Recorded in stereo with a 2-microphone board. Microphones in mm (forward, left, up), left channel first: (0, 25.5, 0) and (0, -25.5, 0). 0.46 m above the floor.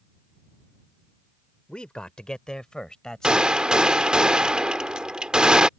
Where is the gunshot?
15° right (ahead or behind).